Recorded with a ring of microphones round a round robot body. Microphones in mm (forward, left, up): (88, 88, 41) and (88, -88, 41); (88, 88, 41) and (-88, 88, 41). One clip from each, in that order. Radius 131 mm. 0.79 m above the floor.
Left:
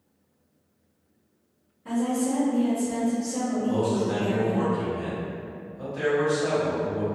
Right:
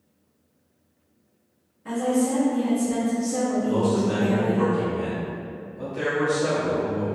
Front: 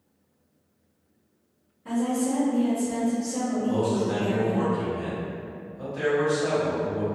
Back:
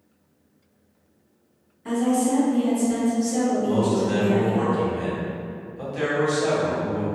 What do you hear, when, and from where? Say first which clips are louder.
1.9 s a woman speaking: right 3 dB, back 4 dB; 155° right, 1.5 m
3.6 s a man speaking: left 1 dB, back 3 dB; 175° right, 1.3 m